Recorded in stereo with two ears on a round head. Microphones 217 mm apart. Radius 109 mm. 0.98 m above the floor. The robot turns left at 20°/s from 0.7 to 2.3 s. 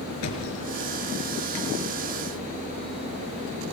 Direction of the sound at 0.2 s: 75° left (ahead or behind).